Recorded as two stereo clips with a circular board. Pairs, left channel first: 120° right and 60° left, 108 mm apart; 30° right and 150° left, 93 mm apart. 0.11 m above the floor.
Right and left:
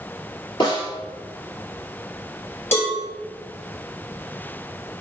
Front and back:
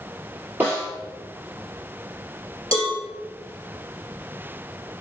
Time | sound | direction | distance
0.6 | a snare drum | 150° right | 1.9 m
2.7 | a cowbell | 175° left | 1.6 m